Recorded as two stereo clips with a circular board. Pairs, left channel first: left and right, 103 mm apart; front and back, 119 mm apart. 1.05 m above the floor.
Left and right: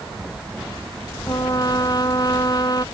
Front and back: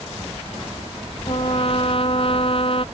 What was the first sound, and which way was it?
A trumpet, 40° left.